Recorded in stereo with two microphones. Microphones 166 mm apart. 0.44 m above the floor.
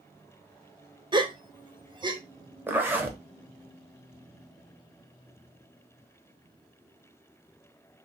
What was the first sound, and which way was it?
A gasp, 25° right (ahead or behind).